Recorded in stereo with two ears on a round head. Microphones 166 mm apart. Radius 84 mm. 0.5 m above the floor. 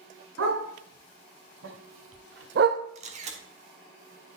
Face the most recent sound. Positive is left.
turn(degrees=-40)  # may be behind; listen again after turning